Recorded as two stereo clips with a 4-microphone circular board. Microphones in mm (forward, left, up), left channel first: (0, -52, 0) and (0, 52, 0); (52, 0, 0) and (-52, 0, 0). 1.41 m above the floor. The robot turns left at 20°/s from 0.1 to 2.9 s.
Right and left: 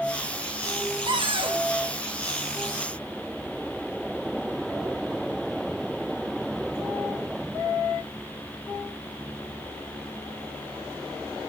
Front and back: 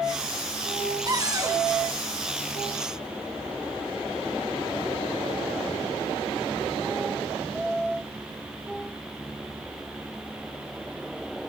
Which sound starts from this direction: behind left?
A cupboard door, at 1.1 s.